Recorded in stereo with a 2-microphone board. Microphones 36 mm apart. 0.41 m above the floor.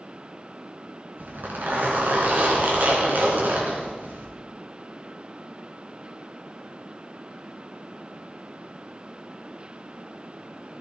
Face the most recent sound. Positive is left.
turn(degrees=-70)  # may be behind; listen again after turning